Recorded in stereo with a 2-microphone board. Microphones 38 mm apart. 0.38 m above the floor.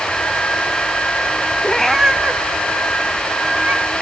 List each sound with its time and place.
1.6 s a cat meowing: 25° left (ahead or behind), 0.6 m; by 3.9 s 70° right (ahead or behind), 2 m